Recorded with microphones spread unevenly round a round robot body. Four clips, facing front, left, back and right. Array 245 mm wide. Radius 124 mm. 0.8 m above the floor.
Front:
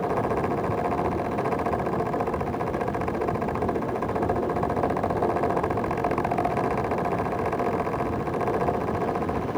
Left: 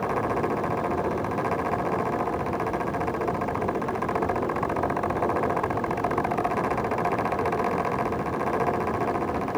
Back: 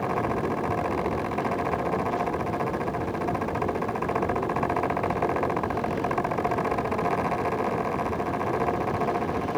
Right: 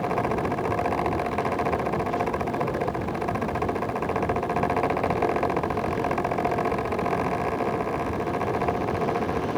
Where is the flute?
No flute in this recording.